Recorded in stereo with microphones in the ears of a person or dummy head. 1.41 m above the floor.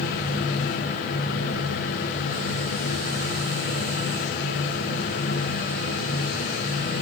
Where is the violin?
I don't hear a violin.